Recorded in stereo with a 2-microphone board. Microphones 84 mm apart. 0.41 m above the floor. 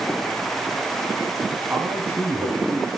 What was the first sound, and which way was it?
A man speaking, 25° right (ahead or behind).